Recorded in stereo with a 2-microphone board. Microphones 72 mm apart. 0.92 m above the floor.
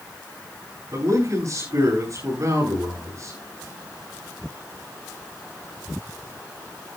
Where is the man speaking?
45° right (ahead or behind), 10 m.